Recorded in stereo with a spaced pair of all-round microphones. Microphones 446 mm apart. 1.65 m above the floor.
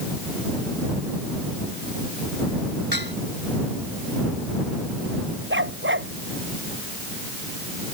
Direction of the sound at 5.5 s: 25° right (ahead or behind).